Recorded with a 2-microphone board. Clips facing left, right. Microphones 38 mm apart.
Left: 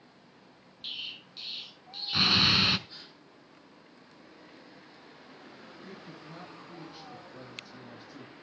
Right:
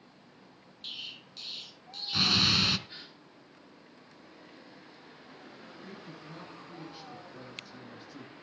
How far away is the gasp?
About 3 m.